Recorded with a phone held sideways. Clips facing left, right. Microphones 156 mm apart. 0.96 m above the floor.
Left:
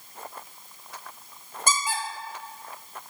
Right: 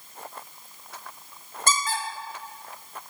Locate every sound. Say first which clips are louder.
1.7 s a squeak: right 1 dB; 10° left (ahead or behind), 0.9 m